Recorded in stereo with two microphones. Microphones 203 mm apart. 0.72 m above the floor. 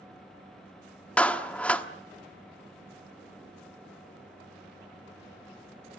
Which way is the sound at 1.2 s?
5° left (ahead or behind).